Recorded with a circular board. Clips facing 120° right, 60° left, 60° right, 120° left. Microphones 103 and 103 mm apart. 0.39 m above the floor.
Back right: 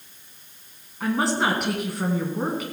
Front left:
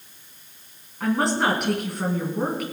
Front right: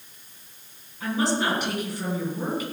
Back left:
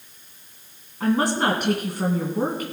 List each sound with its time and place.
1.0 s a woman speaking: 150° left, 3 m